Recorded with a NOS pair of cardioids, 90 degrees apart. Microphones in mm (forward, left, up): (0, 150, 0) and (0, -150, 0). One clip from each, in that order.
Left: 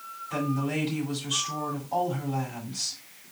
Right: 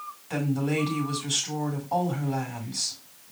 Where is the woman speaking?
70° right, 6 m.